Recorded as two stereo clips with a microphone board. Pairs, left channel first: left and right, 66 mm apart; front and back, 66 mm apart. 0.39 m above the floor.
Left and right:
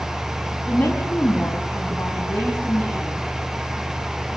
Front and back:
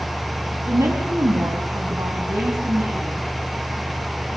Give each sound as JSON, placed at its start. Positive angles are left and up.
{"t": 0.7, "sound": "a woman speaking", "azimuth_deg": 150, "distance_m": 3.5}